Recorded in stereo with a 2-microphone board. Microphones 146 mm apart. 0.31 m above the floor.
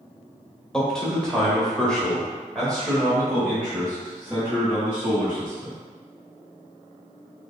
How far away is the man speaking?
About 1.2 m.